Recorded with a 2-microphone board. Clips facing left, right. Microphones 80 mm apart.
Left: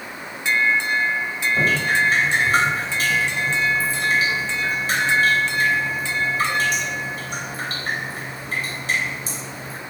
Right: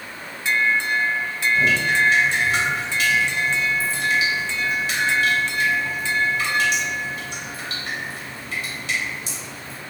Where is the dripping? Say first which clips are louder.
Even; 40° left (ahead or behind), 3.5 m.